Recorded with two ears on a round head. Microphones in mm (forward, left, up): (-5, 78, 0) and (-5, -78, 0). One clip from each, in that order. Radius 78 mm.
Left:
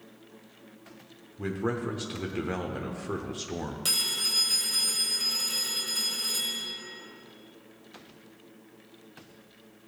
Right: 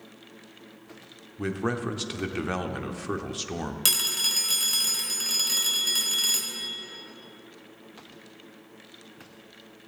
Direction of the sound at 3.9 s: 45° right (ahead or behind).